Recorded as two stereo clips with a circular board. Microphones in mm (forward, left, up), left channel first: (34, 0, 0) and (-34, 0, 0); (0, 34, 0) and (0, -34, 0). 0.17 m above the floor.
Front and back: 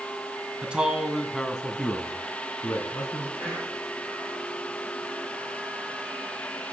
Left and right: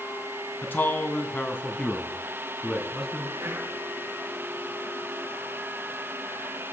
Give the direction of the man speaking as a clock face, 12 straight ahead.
8 o'clock.